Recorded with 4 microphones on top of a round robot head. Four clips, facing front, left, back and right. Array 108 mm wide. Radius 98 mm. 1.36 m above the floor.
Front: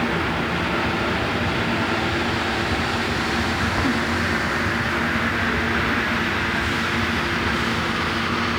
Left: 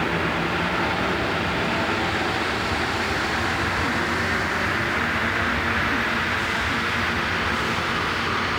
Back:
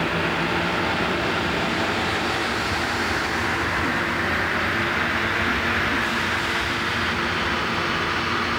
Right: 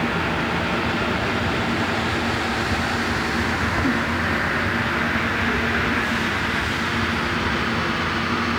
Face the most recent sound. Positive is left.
No sound to turn to.